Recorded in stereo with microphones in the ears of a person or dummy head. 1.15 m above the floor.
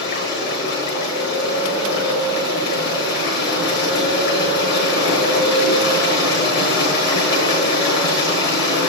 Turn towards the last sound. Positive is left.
turn(degrees=45)  # may be behind; listen again after turning